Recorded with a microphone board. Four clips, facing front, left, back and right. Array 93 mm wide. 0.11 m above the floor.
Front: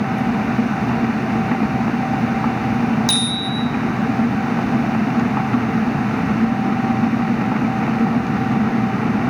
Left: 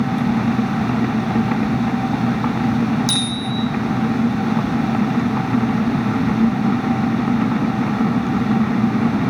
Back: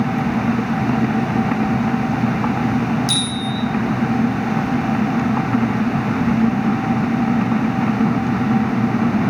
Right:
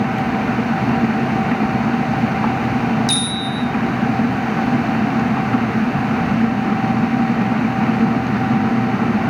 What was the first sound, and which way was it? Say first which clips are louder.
A bicycle bell: right 1 dB, even; 5° left.